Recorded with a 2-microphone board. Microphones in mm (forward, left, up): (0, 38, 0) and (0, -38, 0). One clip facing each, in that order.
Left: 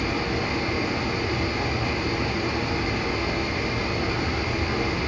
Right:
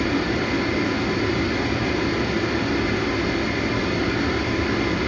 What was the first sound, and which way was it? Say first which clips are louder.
Running water: right 4 dB; 65° right (ahead or behind).